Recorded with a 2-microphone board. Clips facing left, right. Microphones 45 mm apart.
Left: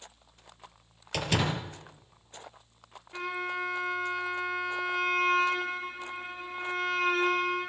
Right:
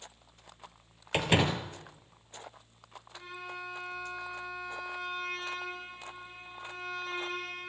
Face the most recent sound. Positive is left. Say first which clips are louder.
# left 10 dB
turn(degrees=80)